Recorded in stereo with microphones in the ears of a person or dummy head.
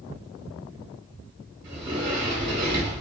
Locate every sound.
1.6 s a sliding door: 25° right (ahead or behind), 1.0 m